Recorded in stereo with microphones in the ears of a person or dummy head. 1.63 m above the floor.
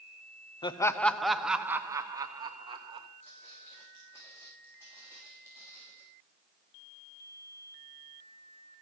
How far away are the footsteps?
About 7 m.